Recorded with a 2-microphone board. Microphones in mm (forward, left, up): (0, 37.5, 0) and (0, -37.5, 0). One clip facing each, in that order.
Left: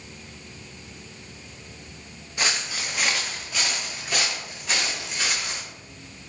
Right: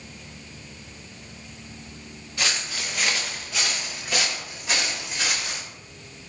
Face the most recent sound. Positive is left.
turn(degrees=-5)  # may be behind; listen again after turning